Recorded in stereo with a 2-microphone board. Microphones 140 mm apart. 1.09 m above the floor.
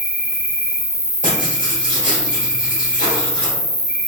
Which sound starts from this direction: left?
Writing, at 1.2 s.